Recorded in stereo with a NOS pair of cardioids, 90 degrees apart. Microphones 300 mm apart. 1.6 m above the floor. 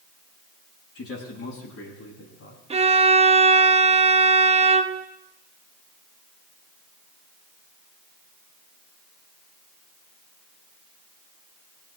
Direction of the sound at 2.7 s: 20° right.